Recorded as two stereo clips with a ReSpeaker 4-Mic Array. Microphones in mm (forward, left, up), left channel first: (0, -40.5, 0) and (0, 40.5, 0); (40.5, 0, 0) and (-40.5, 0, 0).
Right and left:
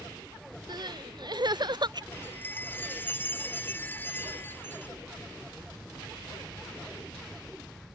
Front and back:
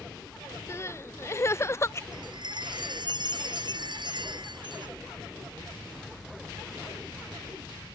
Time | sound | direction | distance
0.7 | crying | 60° left | ?
2.1 | a chime | 155° right | ?